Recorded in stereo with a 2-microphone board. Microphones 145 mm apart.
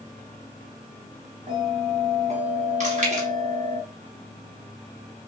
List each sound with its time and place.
1.5 s a bell: 50° right (ahead or behind), 1.1 m
2.8 s chewing: 55° right (ahead or behind), 1.0 m